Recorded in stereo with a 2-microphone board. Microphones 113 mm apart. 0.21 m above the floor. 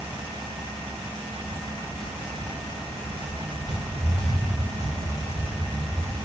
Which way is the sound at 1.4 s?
10° right (ahead or behind).